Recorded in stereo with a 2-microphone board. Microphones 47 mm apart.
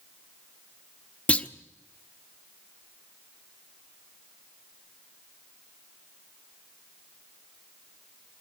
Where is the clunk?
25° left (ahead or behind), 0.9 m.